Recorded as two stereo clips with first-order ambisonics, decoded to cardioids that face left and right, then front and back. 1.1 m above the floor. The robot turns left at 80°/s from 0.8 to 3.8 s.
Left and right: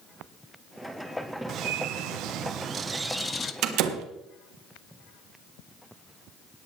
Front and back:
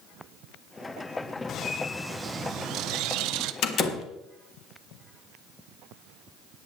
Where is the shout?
No shout in this recording.